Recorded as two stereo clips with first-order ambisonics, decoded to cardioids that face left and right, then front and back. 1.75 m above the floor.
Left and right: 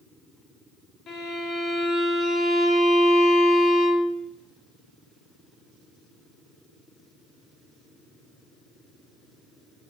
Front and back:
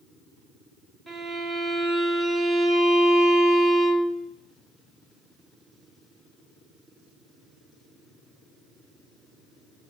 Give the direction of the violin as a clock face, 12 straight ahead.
8 o'clock.